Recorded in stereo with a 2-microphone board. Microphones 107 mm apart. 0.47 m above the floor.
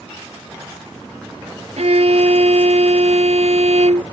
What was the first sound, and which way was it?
A violin, 80° right.